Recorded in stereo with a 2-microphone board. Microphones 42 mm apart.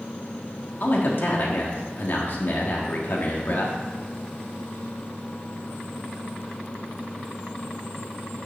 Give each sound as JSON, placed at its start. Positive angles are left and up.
{"t": 0.8, "sound": "a man speaking", "side_deg": 60, "distance_m": 1.4}